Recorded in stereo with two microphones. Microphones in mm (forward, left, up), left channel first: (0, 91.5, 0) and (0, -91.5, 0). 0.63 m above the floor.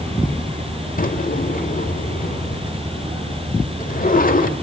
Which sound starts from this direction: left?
A drawer, at 1.0 s.